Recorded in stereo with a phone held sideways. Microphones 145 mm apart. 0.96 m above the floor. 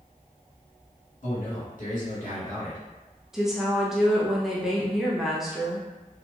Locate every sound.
1.2 s a man speaking: 65° left (ahead or behind), 1.7 m
3.3 s a woman speaking: 5° right (ahead or behind), 0.5 m